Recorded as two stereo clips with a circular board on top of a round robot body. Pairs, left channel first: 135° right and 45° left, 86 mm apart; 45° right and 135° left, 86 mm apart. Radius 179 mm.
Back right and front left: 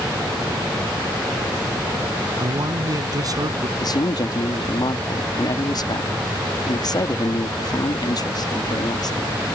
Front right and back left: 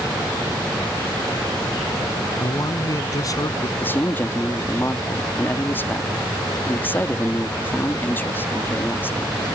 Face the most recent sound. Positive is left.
turn(degrees=-105)